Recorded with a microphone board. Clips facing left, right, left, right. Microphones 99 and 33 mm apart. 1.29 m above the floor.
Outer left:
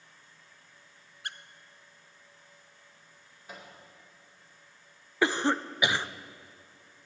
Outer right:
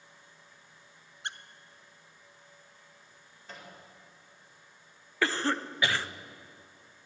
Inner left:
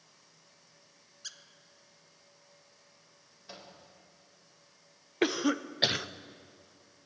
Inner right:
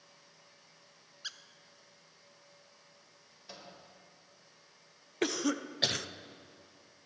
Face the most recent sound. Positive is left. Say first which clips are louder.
# outer left 3 dB, inner left 4 dB
turn(degrees=20)  # may be behind; listen again after turning